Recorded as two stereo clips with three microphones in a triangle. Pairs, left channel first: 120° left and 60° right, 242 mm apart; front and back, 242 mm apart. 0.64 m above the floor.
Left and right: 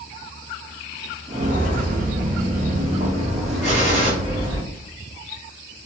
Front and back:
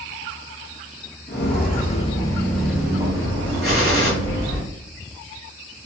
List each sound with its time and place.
1.3 s footsteps: 10° right, 0.8 m; by 4.6 s 130° right, 1.5 m
3.6 s a gunshot: 165° left, 1.5 m